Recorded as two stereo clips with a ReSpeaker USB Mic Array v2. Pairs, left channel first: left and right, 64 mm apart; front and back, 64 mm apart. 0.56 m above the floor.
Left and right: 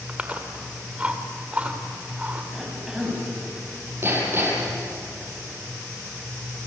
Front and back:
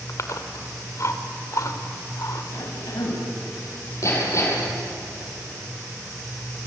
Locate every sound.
0.1 s chewing: 25° right, 2 m
2.5 s a cough: 10° right, 4.5 m
4.0 s hammering: 40° right, 7.5 m